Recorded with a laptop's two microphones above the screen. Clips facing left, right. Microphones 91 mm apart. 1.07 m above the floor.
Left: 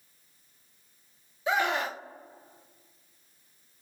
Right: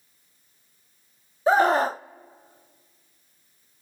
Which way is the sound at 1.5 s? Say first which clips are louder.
Right 9 dB; 35° right (ahead or behind).